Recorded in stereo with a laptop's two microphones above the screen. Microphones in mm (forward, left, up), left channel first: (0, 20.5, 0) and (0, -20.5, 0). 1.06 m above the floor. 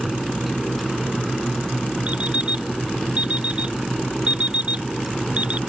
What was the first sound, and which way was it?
A fan, centre (ahead or behind).